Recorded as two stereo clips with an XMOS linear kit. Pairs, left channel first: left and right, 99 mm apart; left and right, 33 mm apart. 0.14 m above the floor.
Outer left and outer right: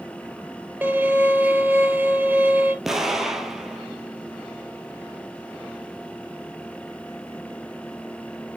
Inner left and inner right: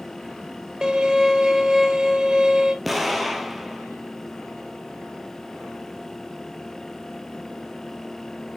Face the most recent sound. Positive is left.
turn(degrees=-5)  # may be behind; listen again after turning